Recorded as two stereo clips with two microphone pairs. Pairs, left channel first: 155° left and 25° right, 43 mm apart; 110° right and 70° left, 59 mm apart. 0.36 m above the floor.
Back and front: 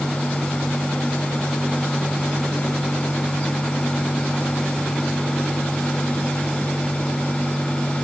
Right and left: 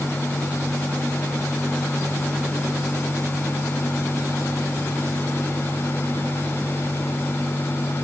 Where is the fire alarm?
No fire alarm in this recording.